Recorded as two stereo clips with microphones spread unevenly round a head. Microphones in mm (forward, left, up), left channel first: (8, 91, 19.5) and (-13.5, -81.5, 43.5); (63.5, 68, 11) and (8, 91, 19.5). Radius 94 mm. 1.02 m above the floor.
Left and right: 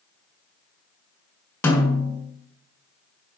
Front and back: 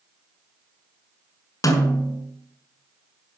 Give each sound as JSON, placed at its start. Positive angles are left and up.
{"t": 1.6, "sound": "a snare drum", "azimuth_deg": 0, "distance_m": 3.0}